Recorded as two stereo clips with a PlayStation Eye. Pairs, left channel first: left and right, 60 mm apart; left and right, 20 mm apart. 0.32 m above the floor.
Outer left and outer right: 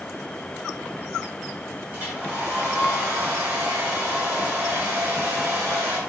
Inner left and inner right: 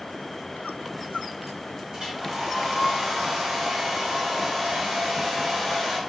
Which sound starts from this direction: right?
A hair dryer, at 1.9 s.